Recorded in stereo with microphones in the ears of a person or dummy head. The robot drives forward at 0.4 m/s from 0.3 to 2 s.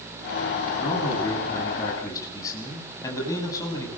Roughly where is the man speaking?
Centre.